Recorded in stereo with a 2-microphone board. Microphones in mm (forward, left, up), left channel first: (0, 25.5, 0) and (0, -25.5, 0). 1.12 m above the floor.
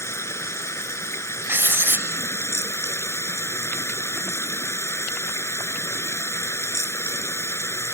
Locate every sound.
0.0 s running water: 80° left
1.5 s writing: 55° right (ahead or behind)